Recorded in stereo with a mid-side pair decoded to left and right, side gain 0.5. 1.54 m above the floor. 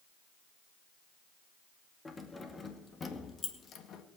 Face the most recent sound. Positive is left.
turn(degrees=60)